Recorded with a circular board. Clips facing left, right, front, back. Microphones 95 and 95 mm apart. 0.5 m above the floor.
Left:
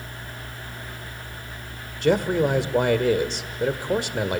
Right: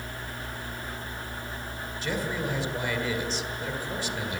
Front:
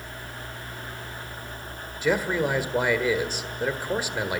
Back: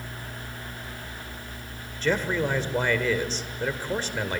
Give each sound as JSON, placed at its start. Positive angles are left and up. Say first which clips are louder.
{"t": 2.0, "sound": "a man speaking", "louder": "left 11 dB, front 1 dB", "azimuth_deg": 80, "distance_m": 1.5}